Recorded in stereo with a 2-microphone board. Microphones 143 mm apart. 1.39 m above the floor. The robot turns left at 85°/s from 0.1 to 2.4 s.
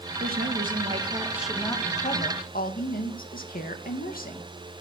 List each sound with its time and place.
0.2 s a woman speaking: 70° right, 1.9 m; by 4.5 s 100° left, 1.9 m